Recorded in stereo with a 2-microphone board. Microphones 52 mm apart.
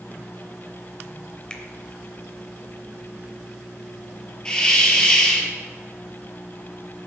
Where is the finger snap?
20° left (ahead or behind), 0.8 m.